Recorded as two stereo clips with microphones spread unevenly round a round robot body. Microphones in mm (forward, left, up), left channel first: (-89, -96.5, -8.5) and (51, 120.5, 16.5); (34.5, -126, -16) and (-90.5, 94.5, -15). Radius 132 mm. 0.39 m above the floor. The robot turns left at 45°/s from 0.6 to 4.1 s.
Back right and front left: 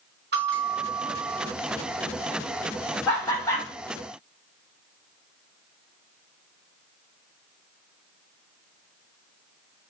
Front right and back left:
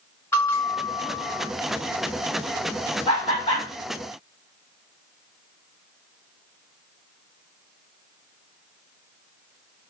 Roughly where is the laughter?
Ahead right.